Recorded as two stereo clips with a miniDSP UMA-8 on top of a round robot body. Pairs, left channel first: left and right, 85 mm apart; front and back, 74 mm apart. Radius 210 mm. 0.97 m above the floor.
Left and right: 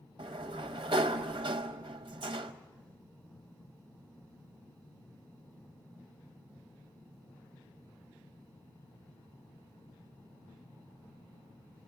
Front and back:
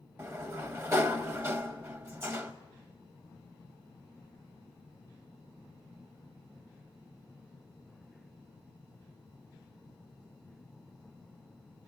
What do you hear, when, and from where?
0.2 s a sliding door: 125° right, 0.6 m